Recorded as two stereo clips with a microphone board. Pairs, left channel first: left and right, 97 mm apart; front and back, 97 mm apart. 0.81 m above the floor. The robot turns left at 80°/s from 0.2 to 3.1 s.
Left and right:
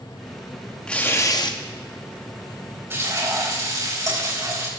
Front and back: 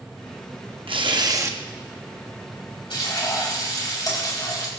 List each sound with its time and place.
0.9 s tearing paper: 170° left, 0.8 m; by 1.6 s 115° left, 0.8 m
2.9 s frying: 25° right, 4 m; by 4.7 s 45° right, 4 m